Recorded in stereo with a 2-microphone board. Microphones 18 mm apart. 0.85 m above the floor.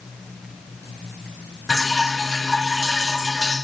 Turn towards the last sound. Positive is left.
turn(degrees=45)  # may be behind; listen again after turning